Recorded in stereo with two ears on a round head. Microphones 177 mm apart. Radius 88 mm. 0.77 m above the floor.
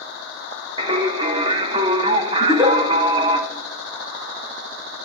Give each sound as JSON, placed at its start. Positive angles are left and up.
{"t": 0.8, "sound": "singing", "side_deg": -25, "distance_m": 0.9}
{"t": 2.4, "sound": "a giggle", "side_deg": -15, "distance_m": 4.5}